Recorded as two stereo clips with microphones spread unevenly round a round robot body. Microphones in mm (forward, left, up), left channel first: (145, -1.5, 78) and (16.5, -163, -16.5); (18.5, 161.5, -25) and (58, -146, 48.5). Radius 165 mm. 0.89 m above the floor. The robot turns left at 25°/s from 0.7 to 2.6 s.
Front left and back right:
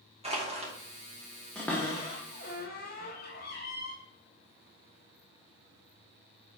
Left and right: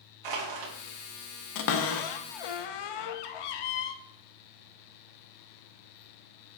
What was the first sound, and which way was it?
Crushing, 80° right.